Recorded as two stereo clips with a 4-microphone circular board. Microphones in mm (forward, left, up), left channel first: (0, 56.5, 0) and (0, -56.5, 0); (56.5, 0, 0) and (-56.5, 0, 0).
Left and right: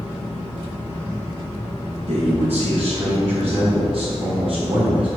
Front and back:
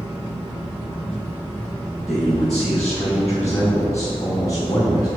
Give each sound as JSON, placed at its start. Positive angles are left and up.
{"t": 2.1, "sound": "a man speaking", "azimuth_deg": -95, "distance_m": 2.5}